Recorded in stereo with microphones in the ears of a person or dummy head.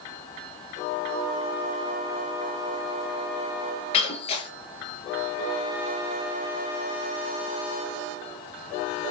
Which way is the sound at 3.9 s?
45° left (ahead or behind).